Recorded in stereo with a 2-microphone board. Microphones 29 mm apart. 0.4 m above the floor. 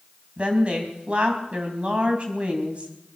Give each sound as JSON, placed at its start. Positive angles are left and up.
{"t": 0.4, "sound": "a woman speaking", "side_deg": -45, "distance_m": 3.0}